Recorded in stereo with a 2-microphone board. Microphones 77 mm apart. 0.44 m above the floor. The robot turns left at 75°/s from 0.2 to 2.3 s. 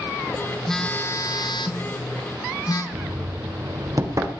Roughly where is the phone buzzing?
Behind.